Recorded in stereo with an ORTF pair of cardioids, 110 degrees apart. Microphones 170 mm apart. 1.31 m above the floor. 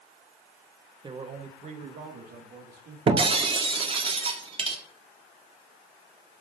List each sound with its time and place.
1.0 s a man speaking: 25° right, 1.3 m; by 3.0 s 65° right, 3 m
3.1 s breaking glass: 35° right, 1.8 m